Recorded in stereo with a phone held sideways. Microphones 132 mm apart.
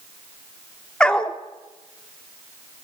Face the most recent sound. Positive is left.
turn(degrees=5)  # may be behind; listen again after turning